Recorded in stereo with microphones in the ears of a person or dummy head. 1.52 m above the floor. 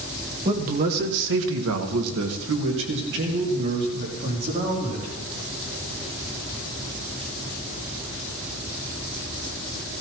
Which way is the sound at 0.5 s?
40° right (ahead or behind).